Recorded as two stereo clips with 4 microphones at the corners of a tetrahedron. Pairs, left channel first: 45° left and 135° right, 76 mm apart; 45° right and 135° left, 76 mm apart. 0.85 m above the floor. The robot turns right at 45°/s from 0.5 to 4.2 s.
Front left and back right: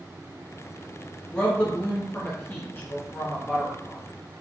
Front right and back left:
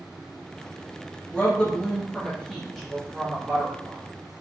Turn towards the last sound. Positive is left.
turn(degrees=120)